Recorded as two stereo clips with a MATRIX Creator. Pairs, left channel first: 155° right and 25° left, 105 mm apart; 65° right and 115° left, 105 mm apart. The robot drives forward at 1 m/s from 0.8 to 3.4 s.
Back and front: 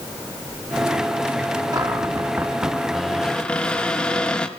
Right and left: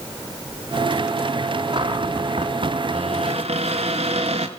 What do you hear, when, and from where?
1.7 s a cupboard door: 75° left, 1.9 m; by 4.5 s 120° left, 2 m